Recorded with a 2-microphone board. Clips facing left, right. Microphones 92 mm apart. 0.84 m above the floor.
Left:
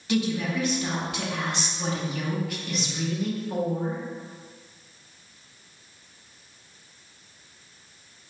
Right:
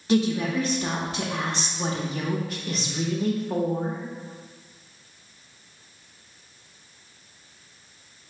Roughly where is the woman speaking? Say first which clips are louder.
Right 3 dB; right.